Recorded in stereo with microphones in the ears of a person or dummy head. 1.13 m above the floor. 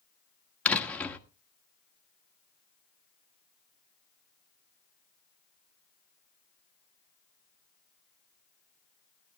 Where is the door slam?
10° left (ahead or behind), 1.5 m.